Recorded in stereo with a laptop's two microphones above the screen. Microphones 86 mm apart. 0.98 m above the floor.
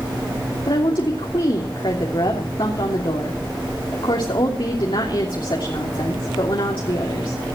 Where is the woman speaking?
65° left (ahead or behind), 3 m.